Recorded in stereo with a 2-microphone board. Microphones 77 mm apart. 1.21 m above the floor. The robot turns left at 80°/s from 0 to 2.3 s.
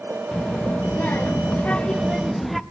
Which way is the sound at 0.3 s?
10° left (ahead or behind).